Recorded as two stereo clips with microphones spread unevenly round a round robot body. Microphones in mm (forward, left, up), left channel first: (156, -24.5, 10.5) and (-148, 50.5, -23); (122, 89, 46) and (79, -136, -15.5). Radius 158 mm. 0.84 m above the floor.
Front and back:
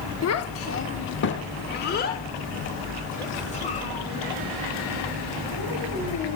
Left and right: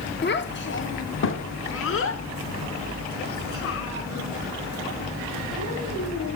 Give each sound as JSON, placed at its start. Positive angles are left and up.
{"t": 0.2, "sound": "a child speaking", "azimuth_deg": 30, "distance_m": 1.6}